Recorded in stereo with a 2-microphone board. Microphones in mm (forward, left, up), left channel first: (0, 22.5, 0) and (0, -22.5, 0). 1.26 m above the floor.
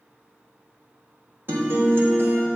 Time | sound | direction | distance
1.5 | a guitar | 55° right (ahead or behind) | 1.3 m